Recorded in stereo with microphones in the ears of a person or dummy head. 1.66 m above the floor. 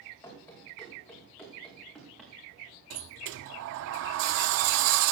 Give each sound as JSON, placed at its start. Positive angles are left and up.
{"t": 0.2, "sound": "running footsteps", "side_deg": 10, "distance_m": 5.5}
{"t": 2.9, "sound": "a sliding door", "side_deg": -60, "distance_m": 0.7}